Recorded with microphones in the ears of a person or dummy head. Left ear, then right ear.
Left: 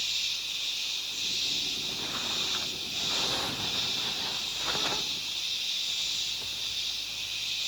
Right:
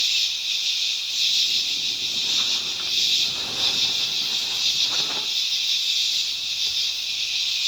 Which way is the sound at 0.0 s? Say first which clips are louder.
Right 8 dB; 45° right (ahead or behind).